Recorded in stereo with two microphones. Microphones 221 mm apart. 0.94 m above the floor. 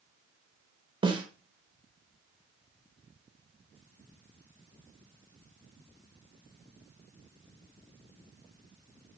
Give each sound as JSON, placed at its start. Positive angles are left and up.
{"t": 1.0, "sound": "a snare drum", "side_deg": -20, "distance_m": 0.6}